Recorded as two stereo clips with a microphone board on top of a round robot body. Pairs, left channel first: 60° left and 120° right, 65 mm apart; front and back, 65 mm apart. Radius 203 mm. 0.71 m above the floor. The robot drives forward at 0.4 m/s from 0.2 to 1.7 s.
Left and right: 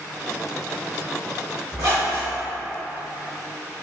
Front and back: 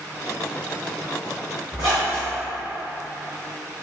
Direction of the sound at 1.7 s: 155° right.